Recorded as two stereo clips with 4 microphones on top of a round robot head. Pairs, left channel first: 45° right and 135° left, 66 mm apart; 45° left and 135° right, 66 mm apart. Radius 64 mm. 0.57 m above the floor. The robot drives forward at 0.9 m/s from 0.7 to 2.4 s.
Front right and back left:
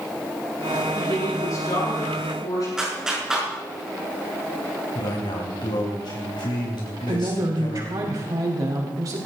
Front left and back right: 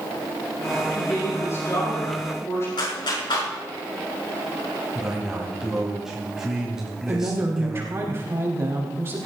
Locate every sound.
0.9 s a woman speaking: 5° right, 7.5 m; by 2.7 s 10° right, 6 m
2.8 s a clap: 55° left, 5.5 m
5.0 s a man speaking: 55° right, 3.5 m
7.1 s a woman speaking: 170° left, 4 m